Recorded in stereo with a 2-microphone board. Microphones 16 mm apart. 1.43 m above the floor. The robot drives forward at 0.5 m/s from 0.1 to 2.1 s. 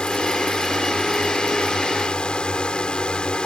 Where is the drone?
75° left (ahead or behind).